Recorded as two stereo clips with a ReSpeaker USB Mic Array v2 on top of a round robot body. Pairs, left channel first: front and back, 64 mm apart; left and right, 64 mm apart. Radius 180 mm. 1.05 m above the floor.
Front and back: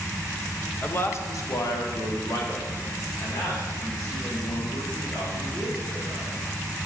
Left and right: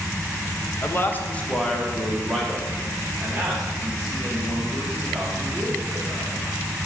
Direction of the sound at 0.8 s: 50° left.